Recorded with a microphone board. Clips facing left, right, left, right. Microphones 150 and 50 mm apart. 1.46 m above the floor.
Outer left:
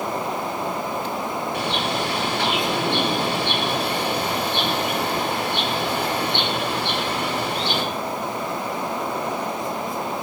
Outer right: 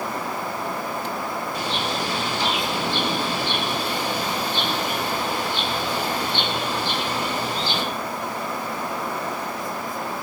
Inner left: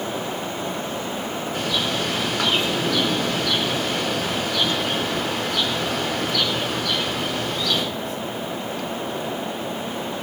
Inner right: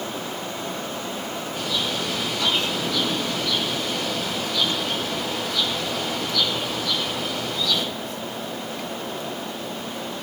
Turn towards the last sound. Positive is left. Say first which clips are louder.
# outer left 2 dB, inner left 2 dB
turn(degrees=70)  # may be behind; listen again after turning